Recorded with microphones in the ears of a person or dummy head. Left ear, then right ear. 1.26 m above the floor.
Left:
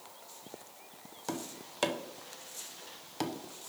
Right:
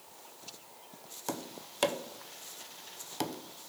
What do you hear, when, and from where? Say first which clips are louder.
1.3 s tapping: even; 10° right (ahead or behind), 0.7 m